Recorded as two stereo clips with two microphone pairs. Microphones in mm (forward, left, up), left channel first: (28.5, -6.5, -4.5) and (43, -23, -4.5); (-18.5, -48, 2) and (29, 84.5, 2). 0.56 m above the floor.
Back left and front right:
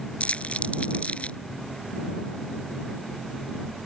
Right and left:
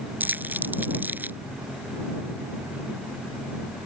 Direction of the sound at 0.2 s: 145° left.